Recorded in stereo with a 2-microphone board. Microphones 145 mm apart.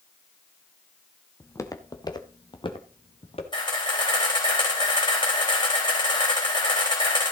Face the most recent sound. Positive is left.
turn(degrees=35)  # may be behind; listen again after turning